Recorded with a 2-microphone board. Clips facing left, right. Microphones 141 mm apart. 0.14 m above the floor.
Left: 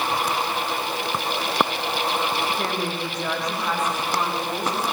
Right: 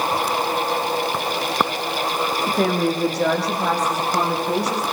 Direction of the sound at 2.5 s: 75° right (ahead or behind).